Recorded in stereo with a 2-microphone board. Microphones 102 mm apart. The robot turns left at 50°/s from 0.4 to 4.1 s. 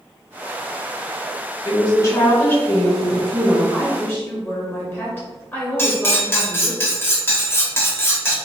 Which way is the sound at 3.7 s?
15° left (ahead or behind).